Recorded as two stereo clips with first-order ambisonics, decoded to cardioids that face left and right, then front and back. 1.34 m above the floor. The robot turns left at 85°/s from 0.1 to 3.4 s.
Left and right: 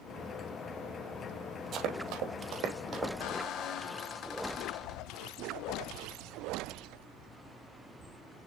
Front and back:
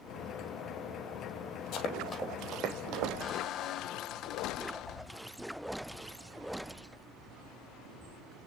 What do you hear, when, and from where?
1.7 s running footsteps: 35° right, 2.5 m; by 3.1 s 175° right, 3.5 m
3.2 s a squeak: 60° left, 0.5 m; by 5.3 s 45° left, 0.5 m